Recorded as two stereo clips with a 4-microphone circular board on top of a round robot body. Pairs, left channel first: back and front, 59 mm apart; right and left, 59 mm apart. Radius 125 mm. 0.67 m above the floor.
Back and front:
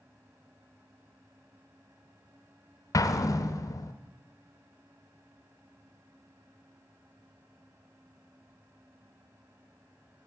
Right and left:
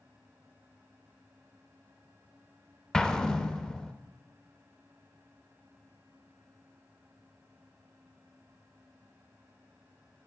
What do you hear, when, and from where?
2.9 s an explosion: 165° right, 0.5 m